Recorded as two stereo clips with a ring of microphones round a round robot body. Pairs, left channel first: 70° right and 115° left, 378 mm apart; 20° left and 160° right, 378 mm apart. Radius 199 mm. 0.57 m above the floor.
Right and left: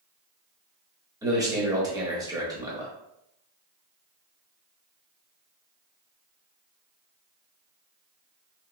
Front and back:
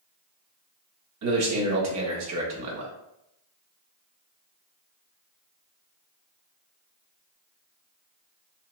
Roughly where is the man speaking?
Behind.